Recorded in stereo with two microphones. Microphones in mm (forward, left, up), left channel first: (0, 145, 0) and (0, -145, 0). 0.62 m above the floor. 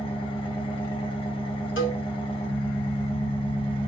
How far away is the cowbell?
About 1.5 m.